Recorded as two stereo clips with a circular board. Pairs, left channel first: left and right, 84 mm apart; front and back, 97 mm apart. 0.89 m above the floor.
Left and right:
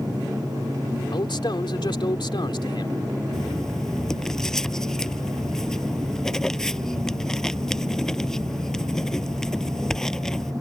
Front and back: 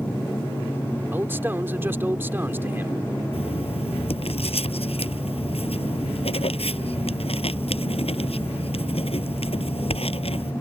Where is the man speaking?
115° left.